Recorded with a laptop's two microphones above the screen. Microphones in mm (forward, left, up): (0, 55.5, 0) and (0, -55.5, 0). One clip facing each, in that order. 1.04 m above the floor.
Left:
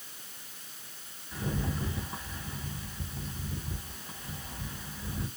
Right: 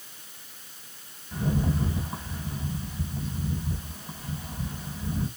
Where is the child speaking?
No child speaking in this recording.